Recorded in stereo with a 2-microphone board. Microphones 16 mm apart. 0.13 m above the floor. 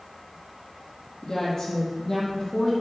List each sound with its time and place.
1.2 s a woman speaking: 35° left (ahead or behind), 4 m; by 2.7 s 25° left (ahead or behind), 4.5 m